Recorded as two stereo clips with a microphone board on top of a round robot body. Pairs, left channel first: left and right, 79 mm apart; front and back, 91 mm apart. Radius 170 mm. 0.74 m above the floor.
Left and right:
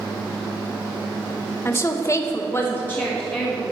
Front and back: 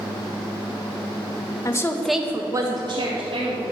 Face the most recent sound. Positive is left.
turn(degrees=165)